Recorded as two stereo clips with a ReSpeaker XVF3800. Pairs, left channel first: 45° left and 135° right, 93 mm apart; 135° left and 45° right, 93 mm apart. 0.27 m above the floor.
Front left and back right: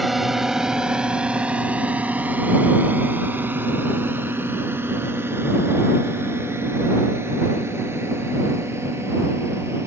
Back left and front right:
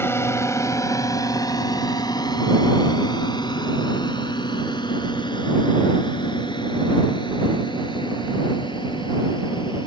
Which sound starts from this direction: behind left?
A drone, at 0.0 s.